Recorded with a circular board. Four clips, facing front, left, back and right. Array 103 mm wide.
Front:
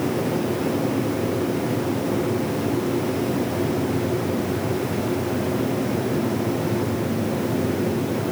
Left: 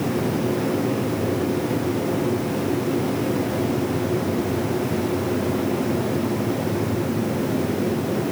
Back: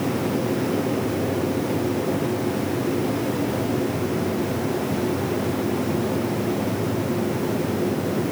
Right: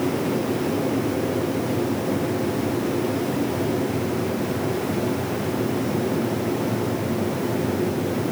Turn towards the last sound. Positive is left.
No sound to turn to.